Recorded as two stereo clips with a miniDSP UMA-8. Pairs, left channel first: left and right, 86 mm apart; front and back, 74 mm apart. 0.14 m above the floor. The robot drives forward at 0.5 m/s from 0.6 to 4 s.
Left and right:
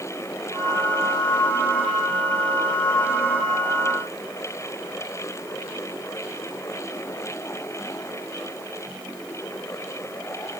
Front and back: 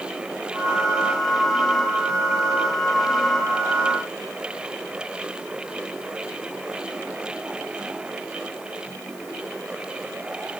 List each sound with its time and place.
Only background noise.